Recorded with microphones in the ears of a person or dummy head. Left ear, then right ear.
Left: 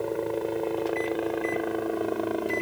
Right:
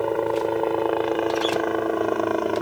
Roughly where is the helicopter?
Right.